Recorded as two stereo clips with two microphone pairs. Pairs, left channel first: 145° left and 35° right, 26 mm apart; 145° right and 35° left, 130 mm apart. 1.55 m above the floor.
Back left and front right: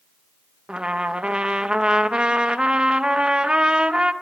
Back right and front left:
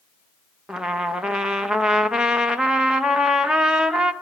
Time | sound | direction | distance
0.7 | a trumpet | 45° right | 0.9 m